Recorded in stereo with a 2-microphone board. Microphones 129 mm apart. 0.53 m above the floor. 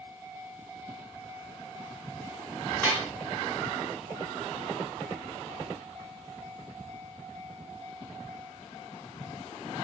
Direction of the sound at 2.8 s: 15° left (ahead or behind).